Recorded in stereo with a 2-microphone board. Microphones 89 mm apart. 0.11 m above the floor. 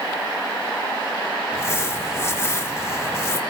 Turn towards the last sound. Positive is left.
turn(degrees=30)  # may be behind; listen again after turning